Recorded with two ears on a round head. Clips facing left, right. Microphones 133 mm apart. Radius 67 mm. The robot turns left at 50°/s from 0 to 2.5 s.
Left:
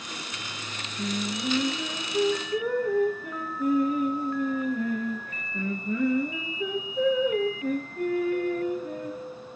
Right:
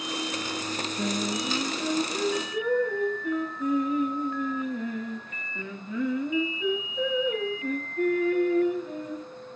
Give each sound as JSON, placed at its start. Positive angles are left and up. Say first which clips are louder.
{"t": 1.0, "sound": "singing", "louder": "even", "azimuth_deg": -140, "distance_m": 7.5}